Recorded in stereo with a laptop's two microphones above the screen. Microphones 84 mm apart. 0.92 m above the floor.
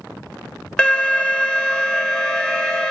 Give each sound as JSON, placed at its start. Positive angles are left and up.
{"t": 0.8, "sound": "an alarm", "side_deg": 10, "distance_m": 0.9}